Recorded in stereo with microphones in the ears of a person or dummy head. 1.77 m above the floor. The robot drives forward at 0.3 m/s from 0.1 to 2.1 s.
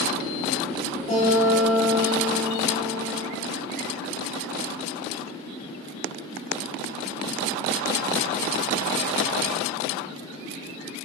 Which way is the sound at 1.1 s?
35° left (ahead or behind).